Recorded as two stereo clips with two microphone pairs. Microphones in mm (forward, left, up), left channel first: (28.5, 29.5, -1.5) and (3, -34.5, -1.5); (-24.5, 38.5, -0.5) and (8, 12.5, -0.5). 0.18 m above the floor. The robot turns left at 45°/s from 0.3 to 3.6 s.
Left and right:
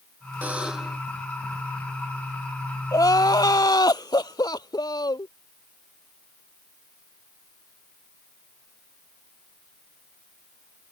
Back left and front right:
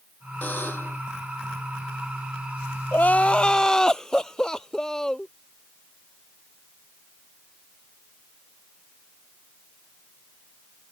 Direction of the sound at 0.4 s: Straight behind.